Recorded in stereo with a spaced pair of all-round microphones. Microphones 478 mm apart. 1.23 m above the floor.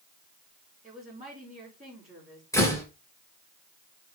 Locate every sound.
0.8 s a woman speaking: 15° right (ahead or behind), 5.5 m
2.5 s a door slam: 5° left (ahead or behind), 3.5 m